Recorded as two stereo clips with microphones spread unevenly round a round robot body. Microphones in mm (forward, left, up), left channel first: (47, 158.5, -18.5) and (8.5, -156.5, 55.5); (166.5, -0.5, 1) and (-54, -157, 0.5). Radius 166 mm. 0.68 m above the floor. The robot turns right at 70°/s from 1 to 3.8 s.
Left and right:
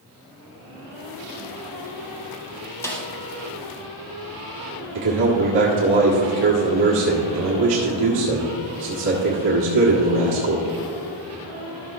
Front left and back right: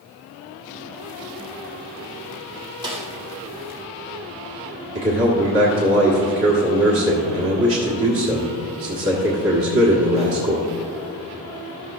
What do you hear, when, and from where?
2.8 s a snare drum: 145° left, 1.2 m; by 3.1 s 165° left, 1.2 m
5.0 s a man speaking: 110° right, 1.6 m